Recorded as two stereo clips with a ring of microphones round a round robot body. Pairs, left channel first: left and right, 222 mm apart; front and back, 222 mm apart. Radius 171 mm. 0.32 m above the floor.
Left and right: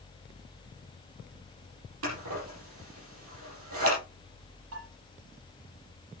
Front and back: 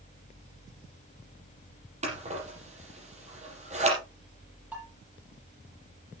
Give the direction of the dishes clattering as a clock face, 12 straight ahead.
3 o'clock.